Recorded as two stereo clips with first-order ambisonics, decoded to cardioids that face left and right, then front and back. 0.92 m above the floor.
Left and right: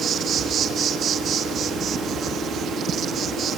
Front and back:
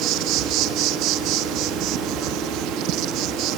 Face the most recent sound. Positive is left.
turn(degrees=-145)